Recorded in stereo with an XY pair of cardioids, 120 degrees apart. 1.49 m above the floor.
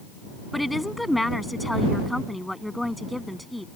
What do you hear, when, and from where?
0.5 s a woman speaking: 5° left